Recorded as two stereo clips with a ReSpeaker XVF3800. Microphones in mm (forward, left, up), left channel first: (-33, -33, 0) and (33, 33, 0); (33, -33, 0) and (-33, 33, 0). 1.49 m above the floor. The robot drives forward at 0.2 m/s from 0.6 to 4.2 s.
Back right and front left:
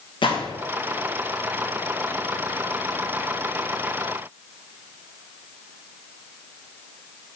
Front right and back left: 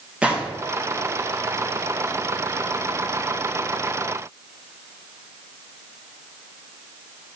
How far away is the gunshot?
About 0.6 m.